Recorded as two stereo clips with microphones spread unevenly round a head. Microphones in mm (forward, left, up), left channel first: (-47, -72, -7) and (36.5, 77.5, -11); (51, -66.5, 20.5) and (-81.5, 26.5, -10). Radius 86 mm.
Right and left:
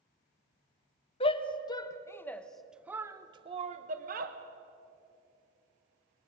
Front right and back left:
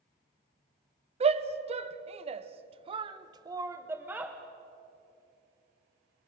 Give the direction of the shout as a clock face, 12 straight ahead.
6 o'clock.